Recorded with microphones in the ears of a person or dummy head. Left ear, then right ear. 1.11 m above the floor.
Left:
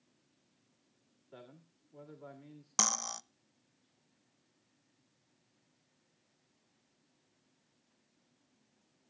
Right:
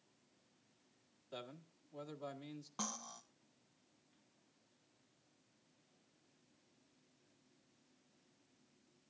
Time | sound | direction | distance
1.3 | a man speaking | 85° right | 2.0 m
2.8 | cutlery clinking | 65° left (ahead or behind) | 0.6 m